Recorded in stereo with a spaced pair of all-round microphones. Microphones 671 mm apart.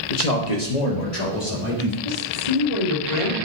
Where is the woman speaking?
80° left, 2.5 m.